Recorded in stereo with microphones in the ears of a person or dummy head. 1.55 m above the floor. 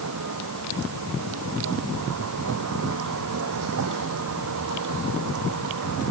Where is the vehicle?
80° right; by 6.1 s 70° right (ahead or behind).